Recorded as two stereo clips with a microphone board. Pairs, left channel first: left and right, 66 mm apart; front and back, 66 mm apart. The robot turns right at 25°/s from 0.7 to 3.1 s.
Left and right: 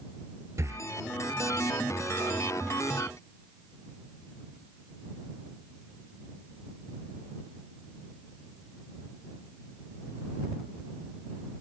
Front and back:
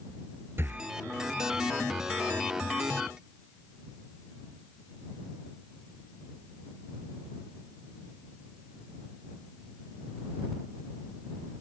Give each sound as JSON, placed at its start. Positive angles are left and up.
{"t": 0.6, "sound": "breathing", "azimuth_deg": -130}